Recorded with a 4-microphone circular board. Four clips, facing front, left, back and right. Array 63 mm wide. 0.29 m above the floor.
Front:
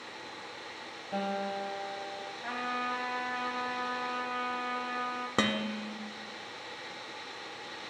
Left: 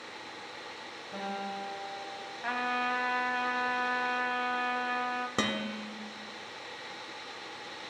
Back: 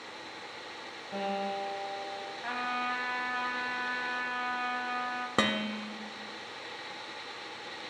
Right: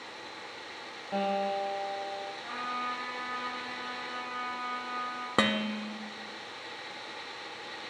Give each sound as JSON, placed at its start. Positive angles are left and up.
{"t": 1.1, "sound": "a guitar", "azimuth_deg": -75, "distance_m": 3.0}
{"t": 2.4, "sound": "a trumpet", "azimuth_deg": 105, "distance_m": 1.2}
{"t": 5.4, "sound": "dishes clattering", "azimuth_deg": -105, "distance_m": 0.6}